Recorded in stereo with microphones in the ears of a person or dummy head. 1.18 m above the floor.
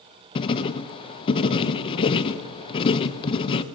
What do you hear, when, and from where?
0.3 s writing: 35° left (ahead or behind), 0.6 m